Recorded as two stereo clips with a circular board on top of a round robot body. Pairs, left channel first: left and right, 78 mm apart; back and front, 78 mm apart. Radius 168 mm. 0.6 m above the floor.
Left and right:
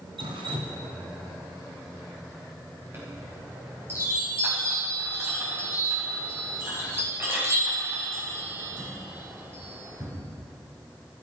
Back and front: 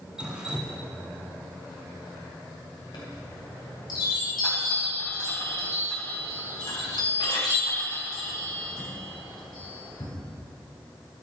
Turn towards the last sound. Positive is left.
turn(degrees=-150)